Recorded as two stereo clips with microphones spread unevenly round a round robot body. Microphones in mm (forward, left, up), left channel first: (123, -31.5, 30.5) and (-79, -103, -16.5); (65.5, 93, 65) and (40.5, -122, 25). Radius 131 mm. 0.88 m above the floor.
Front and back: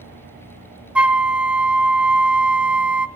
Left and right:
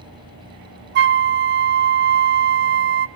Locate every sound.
0.9 s a flute: 65° right, 0.5 m